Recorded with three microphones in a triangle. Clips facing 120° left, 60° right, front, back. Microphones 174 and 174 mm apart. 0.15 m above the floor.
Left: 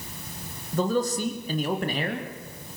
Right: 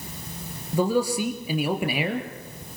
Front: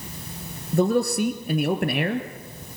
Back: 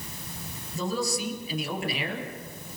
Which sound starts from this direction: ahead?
A man speaking, at 0.7 s.